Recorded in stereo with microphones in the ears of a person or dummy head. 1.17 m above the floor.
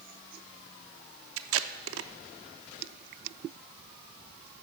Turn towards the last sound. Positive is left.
turn(degrees=-70)  # may be behind; listen again after turning